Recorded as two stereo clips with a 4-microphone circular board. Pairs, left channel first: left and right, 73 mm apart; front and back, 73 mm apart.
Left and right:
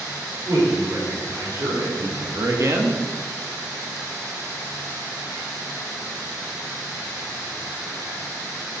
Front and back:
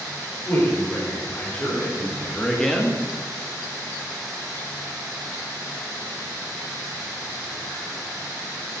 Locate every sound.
0.5 s a man speaking: 55° right, 3.5 m; by 3.0 s 95° right, 1.2 m